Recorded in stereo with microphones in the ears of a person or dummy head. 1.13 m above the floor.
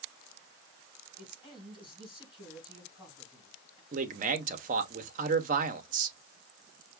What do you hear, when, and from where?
1.2 s a man speaking: 25° left (ahead or behind), 3.5 m
3.9 s a man speaking: 35° right (ahead or behind), 0.6 m